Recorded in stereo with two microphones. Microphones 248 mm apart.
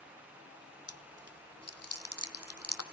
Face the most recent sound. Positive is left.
turn(degrees=80)